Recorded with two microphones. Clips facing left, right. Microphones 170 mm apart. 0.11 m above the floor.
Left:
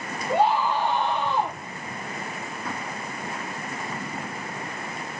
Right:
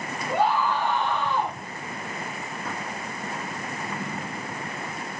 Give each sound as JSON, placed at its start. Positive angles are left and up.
{"t": 0.3, "sound": "a scream", "side_deg": 20, "distance_m": 9.0}